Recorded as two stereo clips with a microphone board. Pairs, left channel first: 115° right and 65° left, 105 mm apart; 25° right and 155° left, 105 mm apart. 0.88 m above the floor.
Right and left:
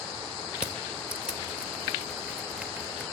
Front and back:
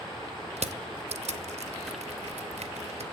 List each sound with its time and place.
0.6 s crushing: 150° left, 0.7 m